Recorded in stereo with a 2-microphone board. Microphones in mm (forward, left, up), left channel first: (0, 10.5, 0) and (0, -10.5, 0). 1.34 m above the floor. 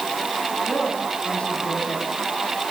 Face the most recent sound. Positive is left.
turn(degrees=85)